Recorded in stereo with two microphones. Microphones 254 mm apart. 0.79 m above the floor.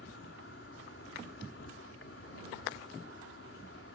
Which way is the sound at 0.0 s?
60° left (ahead or behind).